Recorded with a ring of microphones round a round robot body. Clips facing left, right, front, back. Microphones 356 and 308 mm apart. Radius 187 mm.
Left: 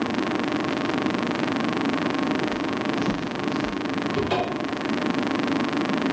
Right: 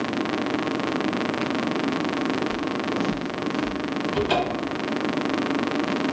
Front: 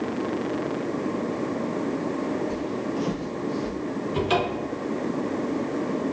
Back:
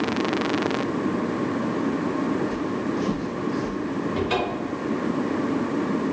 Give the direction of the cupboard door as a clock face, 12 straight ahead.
1 o'clock.